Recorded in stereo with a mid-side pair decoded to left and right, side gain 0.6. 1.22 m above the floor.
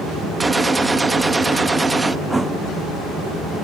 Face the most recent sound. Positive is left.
turn(degrees=-10)